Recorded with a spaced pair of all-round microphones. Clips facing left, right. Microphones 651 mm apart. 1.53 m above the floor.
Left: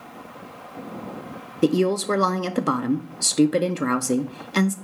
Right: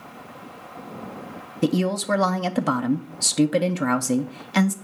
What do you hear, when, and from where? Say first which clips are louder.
1.6 s a woman speaking: left 3 dB; 20° right (ahead or behind), 0.6 m